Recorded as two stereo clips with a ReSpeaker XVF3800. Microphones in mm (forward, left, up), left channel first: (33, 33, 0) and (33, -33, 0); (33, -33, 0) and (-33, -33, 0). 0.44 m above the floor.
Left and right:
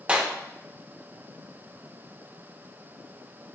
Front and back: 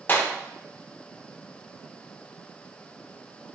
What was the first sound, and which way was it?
A clap, 30° right.